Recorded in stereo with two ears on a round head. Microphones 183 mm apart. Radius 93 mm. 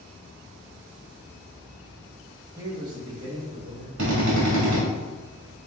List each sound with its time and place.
2.6 s a man speaking: 15° right (ahead or behind), 0.7 m; by 3.9 s 30° right (ahead or behind), 1.7 m
4.0 s a drill: 65° right (ahead or behind), 1.5 m